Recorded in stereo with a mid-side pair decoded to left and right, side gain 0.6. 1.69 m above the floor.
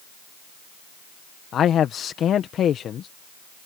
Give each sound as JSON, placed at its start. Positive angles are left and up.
{"t": 1.5, "sound": "a man speaking", "azimuth_deg": 45}